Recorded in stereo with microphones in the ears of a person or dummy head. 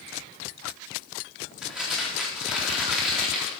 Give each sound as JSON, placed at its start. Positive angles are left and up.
{"t": 1.6, "sound": "crumpling", "side_deg": -5, "distance_m": 4.0}